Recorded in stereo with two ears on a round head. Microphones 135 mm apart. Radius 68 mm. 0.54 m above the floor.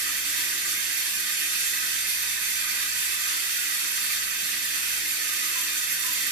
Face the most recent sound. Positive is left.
turn(degrees=-60)  # may be behind; listen again after turning